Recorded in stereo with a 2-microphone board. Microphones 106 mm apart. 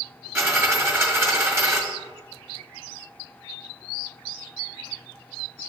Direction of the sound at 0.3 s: 25° right (ahead or behind).